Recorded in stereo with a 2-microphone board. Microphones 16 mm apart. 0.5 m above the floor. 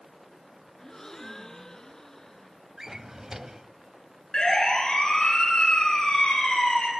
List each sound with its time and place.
0.8 s a gasp: 35° left (ahead or behind), 1.5 m
2.8 s a drawer: 30° right (ahead or behind), 0.8 m
4.3 s a siren: 45° left (ahead or behind), 9.5 m; by 6.9 s 70° left (ahead or behind), 8 m